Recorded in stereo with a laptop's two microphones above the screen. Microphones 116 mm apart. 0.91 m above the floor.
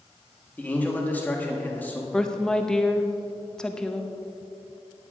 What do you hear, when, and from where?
0.6 s a man speaking: 15° left (ahead or behind), 1.3 m
2.1 s a woman speaking: 5° left (ahead or behind), 0.7 m